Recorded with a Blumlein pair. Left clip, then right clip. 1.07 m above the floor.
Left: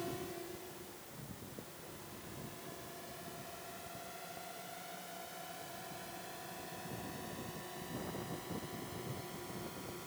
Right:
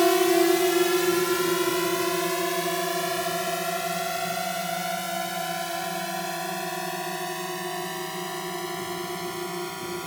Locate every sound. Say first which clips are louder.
0.0 s a drone: right 24 dB; 50° right; by 10.1 s 35° right